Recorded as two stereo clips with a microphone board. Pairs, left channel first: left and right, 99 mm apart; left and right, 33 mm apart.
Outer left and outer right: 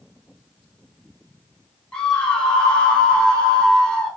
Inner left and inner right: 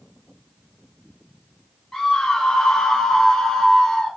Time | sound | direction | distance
1.9 | a scream | 10° left (ahead or behind) | 1.6 m